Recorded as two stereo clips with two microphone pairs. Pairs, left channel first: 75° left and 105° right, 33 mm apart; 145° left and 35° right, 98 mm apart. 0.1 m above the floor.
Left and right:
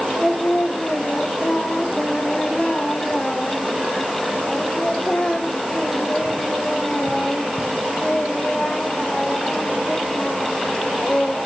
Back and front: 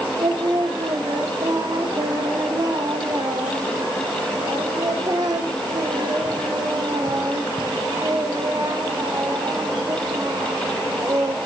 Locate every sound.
0.2 s singing: 10° left, 1.0 m